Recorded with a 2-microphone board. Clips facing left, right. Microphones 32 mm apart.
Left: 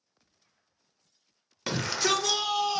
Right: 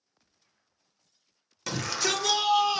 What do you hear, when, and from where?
1.7 s a shout: 20° left (ahead or behind), 0.8 m; by 2.8 s 20° right (ahead or behind), 1.0 m